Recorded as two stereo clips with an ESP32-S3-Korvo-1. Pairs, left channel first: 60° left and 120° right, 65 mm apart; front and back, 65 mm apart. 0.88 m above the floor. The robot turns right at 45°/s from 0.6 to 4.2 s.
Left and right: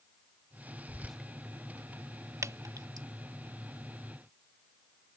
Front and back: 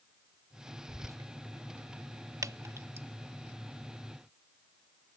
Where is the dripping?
155° right; by 3.1 s 125° right.